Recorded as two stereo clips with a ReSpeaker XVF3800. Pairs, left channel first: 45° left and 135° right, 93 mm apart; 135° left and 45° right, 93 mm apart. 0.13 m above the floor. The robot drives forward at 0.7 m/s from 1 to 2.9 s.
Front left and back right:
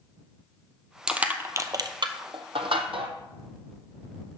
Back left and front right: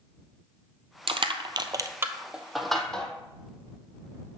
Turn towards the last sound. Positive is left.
turn(degrees=-140)